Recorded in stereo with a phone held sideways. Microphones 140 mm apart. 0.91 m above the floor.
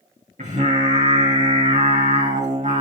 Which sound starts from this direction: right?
Singing, at 0.4 s.